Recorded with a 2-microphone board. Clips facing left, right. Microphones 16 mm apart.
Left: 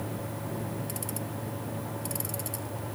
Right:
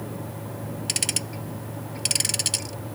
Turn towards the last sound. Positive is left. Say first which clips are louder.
# right 8 dB
turn(degrees=-65)  # may be behind; listen again after turning